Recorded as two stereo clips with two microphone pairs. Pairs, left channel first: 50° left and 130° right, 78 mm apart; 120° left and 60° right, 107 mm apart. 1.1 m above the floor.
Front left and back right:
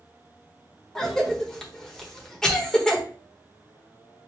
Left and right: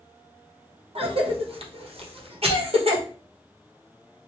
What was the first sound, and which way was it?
A cough, 30° right.